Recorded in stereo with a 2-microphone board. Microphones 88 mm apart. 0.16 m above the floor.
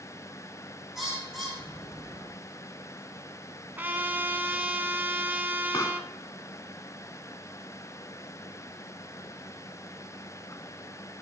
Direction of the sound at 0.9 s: Centre (ahead or behind).